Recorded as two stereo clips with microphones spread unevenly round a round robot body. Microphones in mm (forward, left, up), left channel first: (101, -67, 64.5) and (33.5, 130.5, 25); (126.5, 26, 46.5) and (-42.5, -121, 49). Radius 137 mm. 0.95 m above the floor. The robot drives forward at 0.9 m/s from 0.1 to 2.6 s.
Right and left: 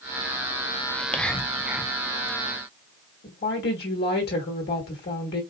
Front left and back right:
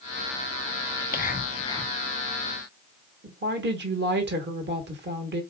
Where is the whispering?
15° left, 1.2 m; by 1.9 s 110° left, 0.8 m.